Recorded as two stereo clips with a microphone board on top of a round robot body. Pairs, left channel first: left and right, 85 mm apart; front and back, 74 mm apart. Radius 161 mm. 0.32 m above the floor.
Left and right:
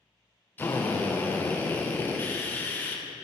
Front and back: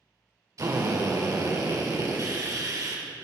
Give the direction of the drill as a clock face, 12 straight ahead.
7 o'clock.